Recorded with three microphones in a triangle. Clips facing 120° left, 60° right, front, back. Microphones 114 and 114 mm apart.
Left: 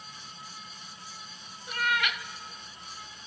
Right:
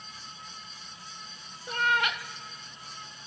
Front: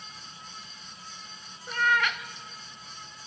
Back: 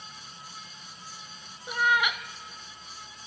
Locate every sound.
1.7 s a cat meowing: 105° right, 0.9 m